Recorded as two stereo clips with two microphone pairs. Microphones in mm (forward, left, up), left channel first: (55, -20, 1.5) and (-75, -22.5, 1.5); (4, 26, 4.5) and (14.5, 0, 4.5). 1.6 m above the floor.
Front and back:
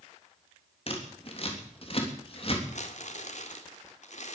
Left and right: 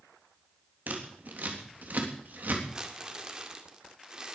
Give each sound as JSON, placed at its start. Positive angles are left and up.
{"t": 0.9, "sound": "scissors", "azimuth_deg": -40, "distance_m": 3.5}
{"t": 2.7, "sound": "crumpling", "azimuth_deg": -5, "distance_m": 2.0}